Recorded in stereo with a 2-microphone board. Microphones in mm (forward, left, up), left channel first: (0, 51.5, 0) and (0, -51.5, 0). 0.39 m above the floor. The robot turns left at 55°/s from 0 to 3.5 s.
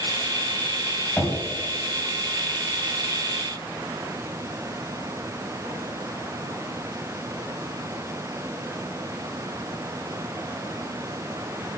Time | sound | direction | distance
1.2 | knocking | 15° left (ahead or behind) | 1.9 m